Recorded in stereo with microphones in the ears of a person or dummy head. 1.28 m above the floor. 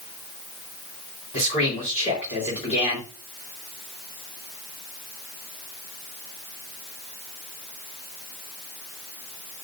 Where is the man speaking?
40° left (ahead or behind), 4 m.